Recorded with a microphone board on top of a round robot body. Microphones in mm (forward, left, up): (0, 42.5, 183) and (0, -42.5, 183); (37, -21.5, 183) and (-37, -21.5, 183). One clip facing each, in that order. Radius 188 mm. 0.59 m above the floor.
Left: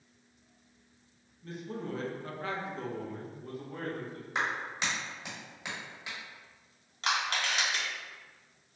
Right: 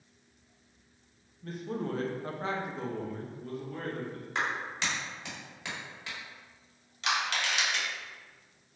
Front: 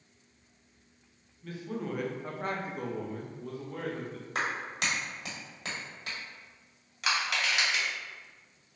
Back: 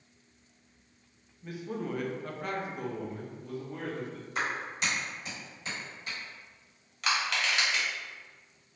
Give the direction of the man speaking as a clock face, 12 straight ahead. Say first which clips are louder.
Right 4 dB, back 1 dB; 4 o'clock.